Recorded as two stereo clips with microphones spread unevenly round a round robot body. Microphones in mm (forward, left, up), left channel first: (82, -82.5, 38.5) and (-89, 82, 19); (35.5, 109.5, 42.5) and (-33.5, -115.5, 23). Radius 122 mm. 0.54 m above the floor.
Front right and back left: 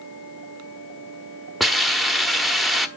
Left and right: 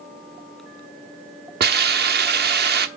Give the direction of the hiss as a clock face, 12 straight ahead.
5 o'clock.